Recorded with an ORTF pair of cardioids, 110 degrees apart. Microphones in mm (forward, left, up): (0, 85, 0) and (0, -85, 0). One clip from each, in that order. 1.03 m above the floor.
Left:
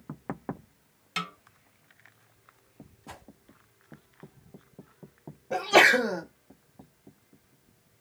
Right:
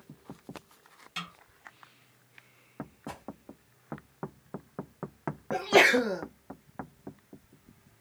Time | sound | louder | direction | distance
1.2 | a snare drum | left 5 dB | 40° left | 0.8 m
3.1 | a whoosh | right 1 dB | 10° right | 1.5 m
5.5 | a sneeze | left 2 dB | 20° left | 1.1 m